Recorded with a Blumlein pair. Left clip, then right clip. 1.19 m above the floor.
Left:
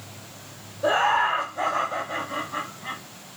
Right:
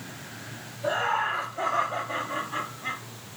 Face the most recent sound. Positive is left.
turn(degrees=-20)